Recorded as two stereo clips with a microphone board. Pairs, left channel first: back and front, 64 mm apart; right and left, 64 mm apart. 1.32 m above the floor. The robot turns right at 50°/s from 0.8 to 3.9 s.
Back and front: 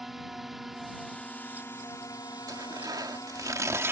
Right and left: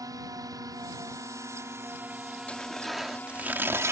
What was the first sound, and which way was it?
A drone, 85° left.